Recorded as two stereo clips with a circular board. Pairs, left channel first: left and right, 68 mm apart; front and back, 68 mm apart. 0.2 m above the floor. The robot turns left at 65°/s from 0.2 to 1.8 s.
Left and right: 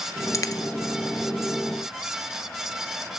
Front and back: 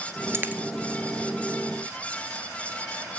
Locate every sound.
0.3 s a dropped coin: 130° left, 0.8 m; by 0.6 s 110° left, 0.8 m